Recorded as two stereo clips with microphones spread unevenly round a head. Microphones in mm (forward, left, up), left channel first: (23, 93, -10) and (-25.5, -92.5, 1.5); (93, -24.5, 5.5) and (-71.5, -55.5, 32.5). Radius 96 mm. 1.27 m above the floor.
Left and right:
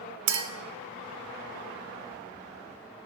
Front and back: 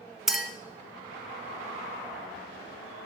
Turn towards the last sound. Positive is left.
turn(degrees=-85)